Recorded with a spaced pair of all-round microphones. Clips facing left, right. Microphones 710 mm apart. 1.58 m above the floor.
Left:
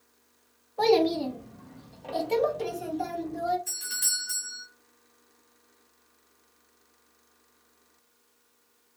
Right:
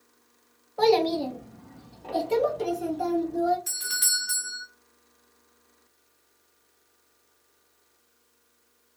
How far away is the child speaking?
About 0.6 m.